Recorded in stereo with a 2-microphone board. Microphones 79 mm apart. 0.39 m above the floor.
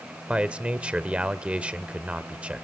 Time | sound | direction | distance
0.3 | a man speaking | 15° right (ahead or behind) | 1.0 m